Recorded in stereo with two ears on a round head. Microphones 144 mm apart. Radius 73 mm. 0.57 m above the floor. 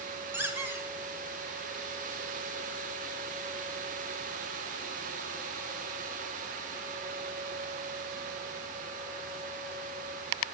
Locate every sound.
0.3 s a squeak: 15° right (ahead or behind), 1.1 m